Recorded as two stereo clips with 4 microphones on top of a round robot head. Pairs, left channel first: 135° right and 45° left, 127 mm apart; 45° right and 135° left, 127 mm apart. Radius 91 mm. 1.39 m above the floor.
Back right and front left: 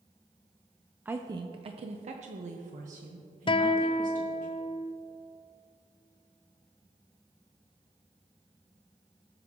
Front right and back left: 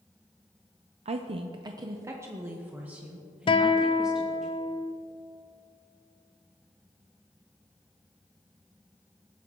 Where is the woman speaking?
120° left, 0.6 m; by 4.5 s 50° left, 2.5 m.